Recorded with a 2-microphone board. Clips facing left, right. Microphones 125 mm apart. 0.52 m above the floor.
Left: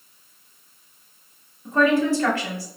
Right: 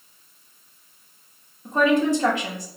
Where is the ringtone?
No ringtone in this recording.